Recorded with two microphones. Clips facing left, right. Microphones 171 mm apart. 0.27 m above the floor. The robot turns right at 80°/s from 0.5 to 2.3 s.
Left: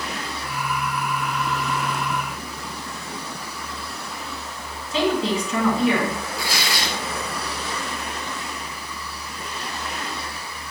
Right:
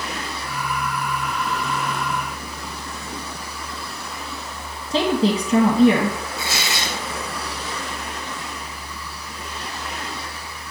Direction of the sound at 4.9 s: 40° right (ahead or behind).